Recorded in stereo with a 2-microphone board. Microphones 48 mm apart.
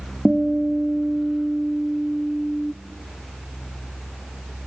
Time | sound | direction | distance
0.2 | a guitar | 5° left (ahead or behind) | 1.3 m